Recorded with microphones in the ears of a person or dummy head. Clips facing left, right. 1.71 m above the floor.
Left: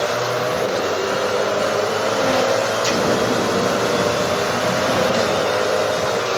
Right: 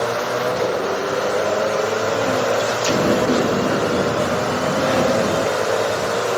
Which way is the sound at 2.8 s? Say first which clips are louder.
Right 4 dB; 30° right (ahead or behind).